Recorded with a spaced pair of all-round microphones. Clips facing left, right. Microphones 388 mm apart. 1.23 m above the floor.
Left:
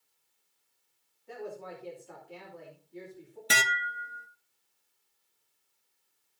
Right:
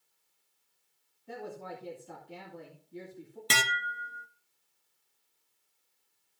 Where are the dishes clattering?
10° right (ahead or behind), 0.6 m.